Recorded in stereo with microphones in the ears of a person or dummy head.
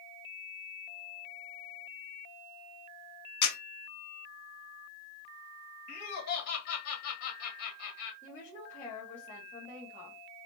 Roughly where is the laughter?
Left.